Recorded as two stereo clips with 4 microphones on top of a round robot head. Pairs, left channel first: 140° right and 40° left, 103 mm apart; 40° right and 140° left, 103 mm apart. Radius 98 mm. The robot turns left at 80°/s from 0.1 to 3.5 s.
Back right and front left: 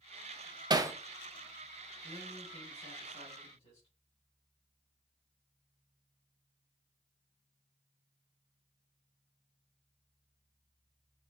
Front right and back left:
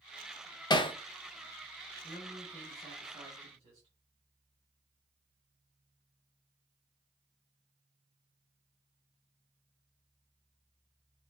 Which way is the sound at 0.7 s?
Straight ahead.